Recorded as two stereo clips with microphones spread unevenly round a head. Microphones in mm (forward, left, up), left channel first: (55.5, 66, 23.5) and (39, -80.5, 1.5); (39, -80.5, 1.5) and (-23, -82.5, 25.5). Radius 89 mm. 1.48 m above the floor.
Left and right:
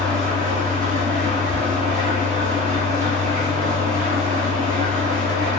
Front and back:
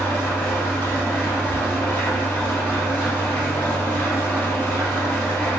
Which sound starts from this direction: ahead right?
An engine running, at 0.0 s.